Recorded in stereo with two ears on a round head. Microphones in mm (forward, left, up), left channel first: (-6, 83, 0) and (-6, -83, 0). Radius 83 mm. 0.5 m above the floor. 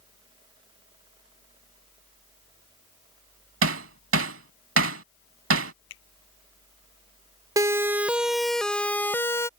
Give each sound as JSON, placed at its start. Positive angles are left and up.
{"t": 3.6, "sound": "hammering", "side_deg": -80}
{"t": 5.9, "sound": "a finger snap", "side_deg": 75}
{"t": 7.6, "sound": "a siren", "side_deg": -20}